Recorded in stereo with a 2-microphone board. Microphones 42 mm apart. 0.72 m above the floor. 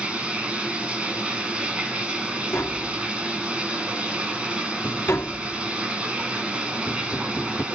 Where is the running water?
25° right (ahead or behind), 6 m.